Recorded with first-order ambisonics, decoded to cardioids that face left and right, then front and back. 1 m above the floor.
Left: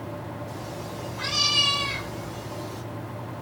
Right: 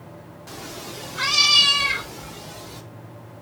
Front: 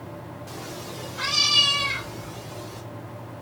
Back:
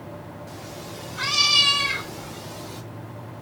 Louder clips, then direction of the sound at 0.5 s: Even, front 3 dB; 80° right.